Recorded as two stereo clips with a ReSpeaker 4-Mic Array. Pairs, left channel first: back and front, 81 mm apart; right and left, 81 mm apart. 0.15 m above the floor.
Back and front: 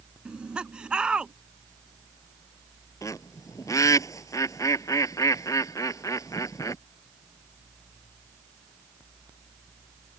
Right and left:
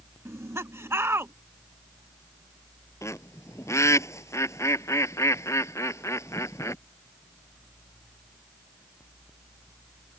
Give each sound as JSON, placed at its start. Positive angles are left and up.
{"t": 0.2, "sound": "laughter", "azimuth_deg": 70}
{"t": 3.0, "sound": "a bird", "azimuth_deg": -140}